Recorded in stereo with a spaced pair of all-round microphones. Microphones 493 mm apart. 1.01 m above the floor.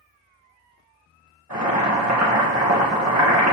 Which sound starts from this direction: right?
Boiling, at 1.5 s.